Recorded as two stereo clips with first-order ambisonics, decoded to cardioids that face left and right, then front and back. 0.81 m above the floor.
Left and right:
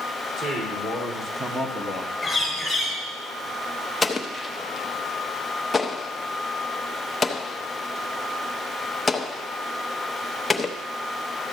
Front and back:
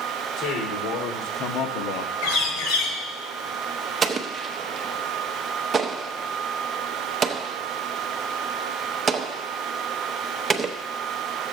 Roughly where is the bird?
Ahead.